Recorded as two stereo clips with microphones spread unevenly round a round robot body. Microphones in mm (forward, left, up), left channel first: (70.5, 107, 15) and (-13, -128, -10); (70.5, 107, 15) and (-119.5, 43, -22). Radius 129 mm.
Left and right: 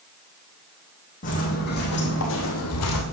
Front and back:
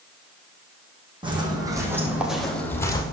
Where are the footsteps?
130° left, 3.5 m; by 3.0 s 80° left, 2 m.